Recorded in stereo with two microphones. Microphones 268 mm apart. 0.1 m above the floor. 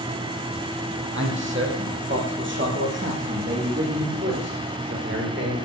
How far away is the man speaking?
About 4.5 m.